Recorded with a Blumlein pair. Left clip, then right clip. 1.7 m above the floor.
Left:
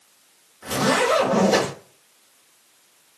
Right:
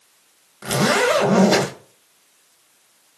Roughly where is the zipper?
Ahead right.